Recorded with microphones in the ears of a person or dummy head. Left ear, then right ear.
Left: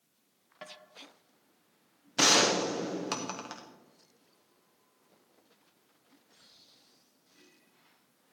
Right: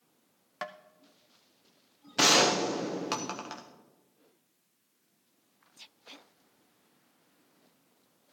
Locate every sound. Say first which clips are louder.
0.6 s tapping: right 8 dB; 40° right (ahead or behind), 0.5 m
2.2 s a gunshot: right 1 dB; centre (ahead or behind), 0.7 m